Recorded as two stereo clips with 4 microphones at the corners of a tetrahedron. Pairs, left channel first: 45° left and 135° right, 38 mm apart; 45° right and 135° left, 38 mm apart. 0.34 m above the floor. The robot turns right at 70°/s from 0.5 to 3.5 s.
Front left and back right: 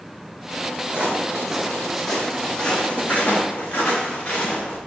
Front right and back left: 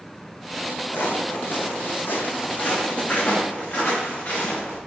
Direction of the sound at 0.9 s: 75° right.